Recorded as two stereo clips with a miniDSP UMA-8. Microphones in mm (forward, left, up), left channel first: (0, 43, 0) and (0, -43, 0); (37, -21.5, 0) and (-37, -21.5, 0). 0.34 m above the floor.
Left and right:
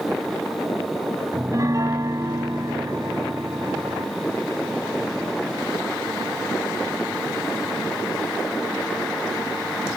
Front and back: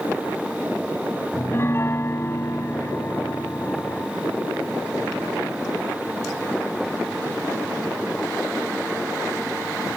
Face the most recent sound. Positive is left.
turn(degrees=-50)